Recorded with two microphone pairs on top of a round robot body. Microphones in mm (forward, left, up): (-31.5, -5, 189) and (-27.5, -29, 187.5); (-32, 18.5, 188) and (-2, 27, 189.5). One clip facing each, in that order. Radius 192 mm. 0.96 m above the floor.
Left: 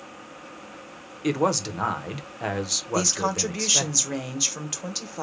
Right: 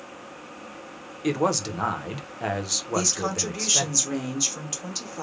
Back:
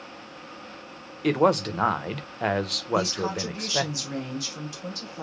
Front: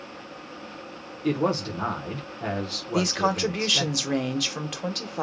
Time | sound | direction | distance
1.2 | a man speaking | 175° right | 1.0 m
2.9 | a woman speaking | 20° left | 1.2 m